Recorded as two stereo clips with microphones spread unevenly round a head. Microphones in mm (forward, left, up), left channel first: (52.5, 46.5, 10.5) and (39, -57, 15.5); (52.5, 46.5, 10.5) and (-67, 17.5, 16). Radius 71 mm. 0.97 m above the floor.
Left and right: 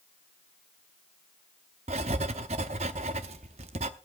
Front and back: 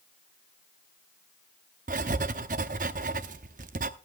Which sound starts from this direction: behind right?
Writing, at 1.9 s.